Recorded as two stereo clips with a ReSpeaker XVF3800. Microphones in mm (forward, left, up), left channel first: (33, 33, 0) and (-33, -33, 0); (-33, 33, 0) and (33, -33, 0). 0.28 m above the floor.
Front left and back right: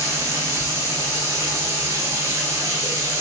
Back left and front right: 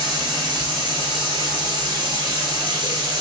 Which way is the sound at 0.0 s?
80° right.